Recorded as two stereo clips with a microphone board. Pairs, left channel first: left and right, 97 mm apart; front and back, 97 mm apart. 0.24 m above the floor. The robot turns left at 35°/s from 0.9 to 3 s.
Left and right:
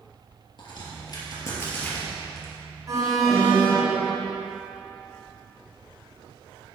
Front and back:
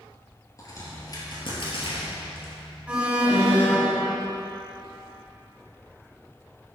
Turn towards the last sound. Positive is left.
turn(degrees=-115)